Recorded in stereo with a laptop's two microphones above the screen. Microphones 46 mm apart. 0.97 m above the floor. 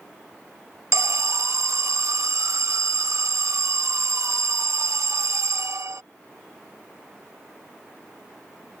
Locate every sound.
0.9 s an alarm: 75° right (ahead or behind)